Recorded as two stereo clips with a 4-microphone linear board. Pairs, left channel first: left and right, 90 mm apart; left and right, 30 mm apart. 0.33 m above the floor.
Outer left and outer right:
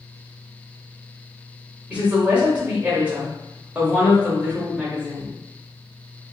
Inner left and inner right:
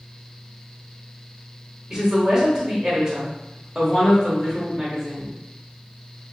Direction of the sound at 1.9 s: 15° right (ahead or behind).